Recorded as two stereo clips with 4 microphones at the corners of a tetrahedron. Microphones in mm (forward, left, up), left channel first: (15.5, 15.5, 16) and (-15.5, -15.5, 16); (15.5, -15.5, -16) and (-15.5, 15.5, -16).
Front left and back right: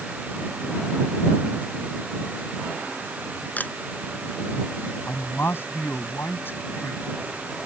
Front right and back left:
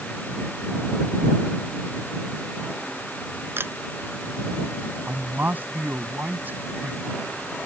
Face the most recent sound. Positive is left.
turn(degrees=85)